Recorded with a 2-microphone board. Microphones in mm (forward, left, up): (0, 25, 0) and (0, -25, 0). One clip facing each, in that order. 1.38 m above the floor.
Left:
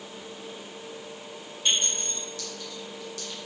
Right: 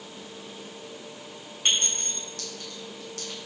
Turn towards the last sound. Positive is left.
turn(degrees=-50)  # may be behind; listen again after turning